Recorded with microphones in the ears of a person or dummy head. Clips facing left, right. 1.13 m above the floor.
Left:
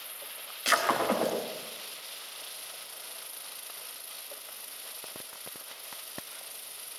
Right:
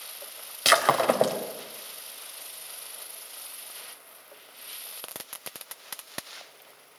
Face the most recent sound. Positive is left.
turn(degrees=-70)  # may be behind; listen again after turning